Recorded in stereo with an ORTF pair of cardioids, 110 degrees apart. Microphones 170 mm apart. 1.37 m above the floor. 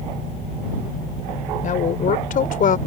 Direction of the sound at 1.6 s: 45° left.